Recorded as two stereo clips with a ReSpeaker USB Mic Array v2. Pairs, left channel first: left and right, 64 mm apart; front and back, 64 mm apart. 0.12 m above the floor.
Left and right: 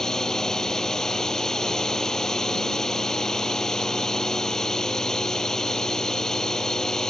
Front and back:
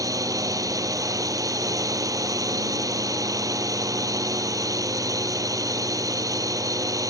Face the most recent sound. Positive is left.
turn(degrees=170)